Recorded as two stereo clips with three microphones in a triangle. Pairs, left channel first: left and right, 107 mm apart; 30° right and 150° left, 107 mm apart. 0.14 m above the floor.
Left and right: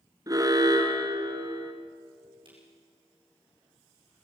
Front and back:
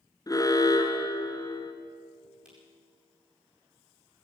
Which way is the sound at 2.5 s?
130° right.